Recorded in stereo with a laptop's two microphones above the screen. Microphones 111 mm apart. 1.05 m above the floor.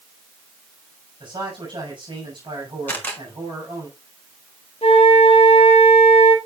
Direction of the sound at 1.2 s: 45° right (ahead or behind).